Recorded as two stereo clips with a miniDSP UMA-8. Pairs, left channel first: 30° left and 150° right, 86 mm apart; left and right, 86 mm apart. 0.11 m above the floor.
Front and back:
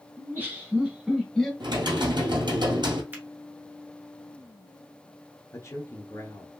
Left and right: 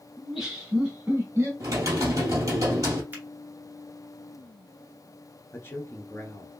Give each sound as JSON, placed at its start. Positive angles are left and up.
{"t": 0.2, "sound": "laughter", "azimuth_deg": -175, "distance_m": 1.7}
{"t": 1.6, "sound": "typing on a keyboard", "azimuth_deg": -135, "distance_m": 1.9}
{"t": 3.1, "sound": "a finger snap", "azimuth_deg": -115, "distance_m": 1.4}
{"t": 5.5, "sound": "a man speaking", "azimuth_deg": 45, "distance_m": 1.3}